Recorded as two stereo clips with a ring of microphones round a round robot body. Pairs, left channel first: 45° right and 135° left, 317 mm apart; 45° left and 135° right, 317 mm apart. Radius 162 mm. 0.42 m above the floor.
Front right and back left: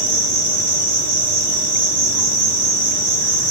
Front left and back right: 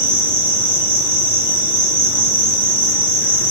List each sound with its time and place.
0.0 s an insect: 140° left, 1.2 m